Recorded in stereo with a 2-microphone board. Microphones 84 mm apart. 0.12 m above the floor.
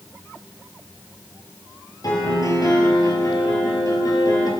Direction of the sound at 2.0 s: 50° left (ahead or behind).